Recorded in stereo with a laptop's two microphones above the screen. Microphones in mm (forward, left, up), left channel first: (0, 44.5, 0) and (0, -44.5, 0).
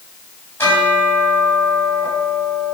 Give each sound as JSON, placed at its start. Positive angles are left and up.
{"t": 0.6, "sound": "a bell", "side_deg": 25, "distance_m": 6.5}